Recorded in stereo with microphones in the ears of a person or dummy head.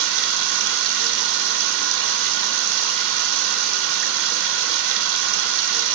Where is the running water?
70° right (ahead or behind), 1.7 m.